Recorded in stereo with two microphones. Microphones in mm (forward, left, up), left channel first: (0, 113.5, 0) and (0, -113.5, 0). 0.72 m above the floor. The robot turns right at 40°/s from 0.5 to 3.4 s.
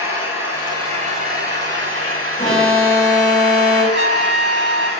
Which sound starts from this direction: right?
A trumpet, at 3.9 s.